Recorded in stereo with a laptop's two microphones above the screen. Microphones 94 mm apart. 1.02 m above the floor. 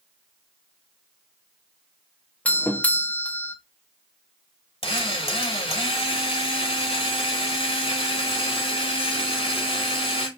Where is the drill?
75° left (ahead or behind), 1.8 m.